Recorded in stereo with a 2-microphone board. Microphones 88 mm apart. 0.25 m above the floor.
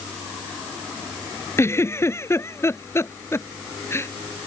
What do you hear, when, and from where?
1.6 s a giggle: 30° left (ahead or behind)